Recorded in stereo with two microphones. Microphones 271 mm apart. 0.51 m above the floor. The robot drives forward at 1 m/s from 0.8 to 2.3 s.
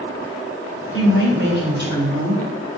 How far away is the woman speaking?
About 2.5 m.